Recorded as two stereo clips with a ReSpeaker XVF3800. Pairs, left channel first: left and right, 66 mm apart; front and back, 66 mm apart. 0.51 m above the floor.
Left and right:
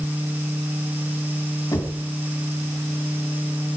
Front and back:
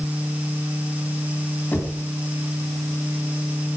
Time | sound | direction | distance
1.7 | knocking | 65° left | 4 m